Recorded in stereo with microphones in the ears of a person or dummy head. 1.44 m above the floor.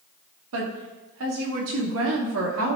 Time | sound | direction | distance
0.5 | a woman speaking | 80° right | 2.5 m